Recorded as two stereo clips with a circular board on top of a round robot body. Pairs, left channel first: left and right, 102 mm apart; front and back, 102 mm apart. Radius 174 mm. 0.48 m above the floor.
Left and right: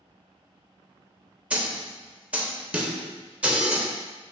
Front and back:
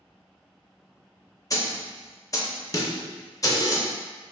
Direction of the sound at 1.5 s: 20° right.